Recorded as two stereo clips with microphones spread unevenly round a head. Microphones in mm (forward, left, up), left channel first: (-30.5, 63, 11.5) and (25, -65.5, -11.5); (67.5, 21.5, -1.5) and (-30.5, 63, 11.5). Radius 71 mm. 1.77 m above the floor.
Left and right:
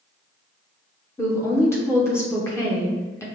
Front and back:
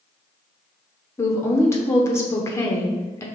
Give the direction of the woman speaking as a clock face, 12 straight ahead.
11 o'clock.